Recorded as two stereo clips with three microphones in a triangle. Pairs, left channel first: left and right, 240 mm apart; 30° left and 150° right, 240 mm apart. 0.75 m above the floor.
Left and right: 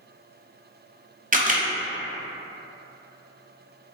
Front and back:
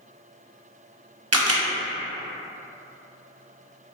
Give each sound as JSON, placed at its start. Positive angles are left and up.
{"t": 1.3, "sound": "a camera shutter", "azimuth_deg": -150, "distance_m": 0.5}